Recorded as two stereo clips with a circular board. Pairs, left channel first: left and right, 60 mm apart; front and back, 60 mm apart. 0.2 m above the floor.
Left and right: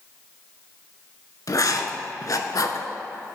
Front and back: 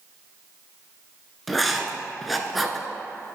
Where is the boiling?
No boiling in this recording.